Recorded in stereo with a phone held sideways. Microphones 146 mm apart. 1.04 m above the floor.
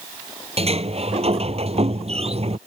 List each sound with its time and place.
0.6 s a sliding door: 45° right (ahead or behind)